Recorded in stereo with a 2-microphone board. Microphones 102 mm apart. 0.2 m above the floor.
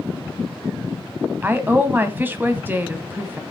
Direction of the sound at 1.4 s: 20° right (ahead or behind).